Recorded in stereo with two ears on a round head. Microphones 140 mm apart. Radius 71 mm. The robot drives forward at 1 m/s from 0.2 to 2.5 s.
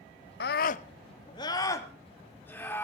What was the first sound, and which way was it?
A scream, 70° left (ahead or behind).